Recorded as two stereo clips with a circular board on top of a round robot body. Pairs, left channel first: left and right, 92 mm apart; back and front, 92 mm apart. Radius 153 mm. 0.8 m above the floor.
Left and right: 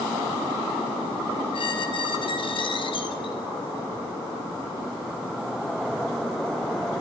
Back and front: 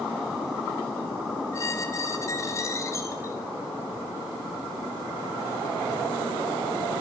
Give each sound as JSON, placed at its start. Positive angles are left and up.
{"t": 1.5, "sound": "a squeak", "azimuth_deg": 120, "distance_m": 1.4}